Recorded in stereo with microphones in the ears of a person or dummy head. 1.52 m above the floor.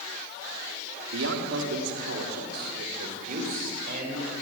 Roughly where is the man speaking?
Right.